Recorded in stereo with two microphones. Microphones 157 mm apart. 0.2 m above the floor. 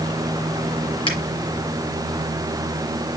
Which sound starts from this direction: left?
A finger snap, at 1.1 s.